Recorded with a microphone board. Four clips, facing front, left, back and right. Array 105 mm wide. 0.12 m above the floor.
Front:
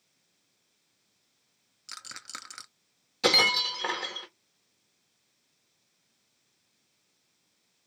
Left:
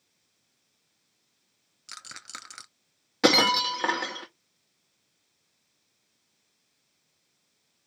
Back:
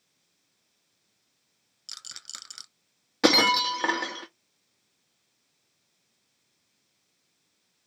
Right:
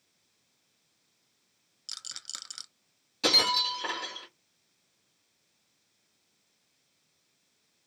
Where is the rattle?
50° left, 0.7 m.